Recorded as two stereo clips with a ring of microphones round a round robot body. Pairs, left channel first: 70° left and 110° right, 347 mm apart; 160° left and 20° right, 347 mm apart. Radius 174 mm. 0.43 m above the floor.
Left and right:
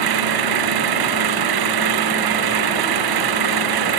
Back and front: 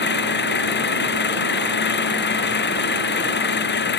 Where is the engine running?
140° right.